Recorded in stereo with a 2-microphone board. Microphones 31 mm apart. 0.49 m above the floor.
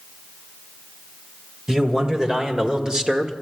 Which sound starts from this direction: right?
A man speaking, at 1.7 s.